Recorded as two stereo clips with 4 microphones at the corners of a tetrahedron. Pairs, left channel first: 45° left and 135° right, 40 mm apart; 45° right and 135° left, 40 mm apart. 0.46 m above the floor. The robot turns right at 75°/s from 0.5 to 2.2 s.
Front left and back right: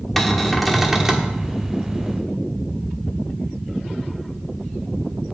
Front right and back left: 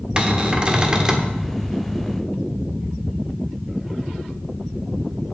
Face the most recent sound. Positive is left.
turn(degrees=-110)